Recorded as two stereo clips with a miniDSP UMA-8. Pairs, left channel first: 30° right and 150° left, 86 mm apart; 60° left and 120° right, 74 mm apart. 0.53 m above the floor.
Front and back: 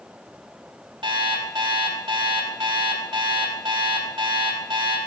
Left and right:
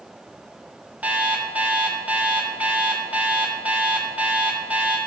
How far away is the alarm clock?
About 1.7 m.